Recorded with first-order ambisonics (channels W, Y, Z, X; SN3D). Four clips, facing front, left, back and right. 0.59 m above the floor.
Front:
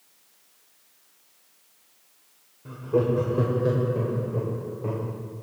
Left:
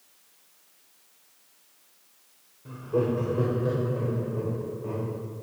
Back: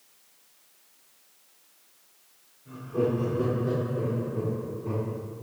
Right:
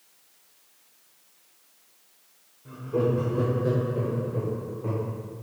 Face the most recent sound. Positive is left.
turn(degrees=-20)